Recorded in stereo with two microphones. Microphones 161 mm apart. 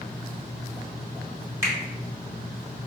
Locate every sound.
1.6 s a finger snap: 15° right (ahead or behind), 1.4 m